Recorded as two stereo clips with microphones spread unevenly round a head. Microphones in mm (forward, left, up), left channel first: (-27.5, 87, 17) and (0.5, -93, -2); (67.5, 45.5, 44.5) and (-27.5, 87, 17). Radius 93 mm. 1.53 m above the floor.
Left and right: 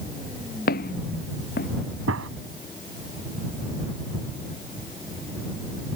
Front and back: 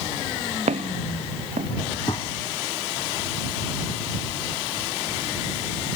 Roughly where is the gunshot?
Right.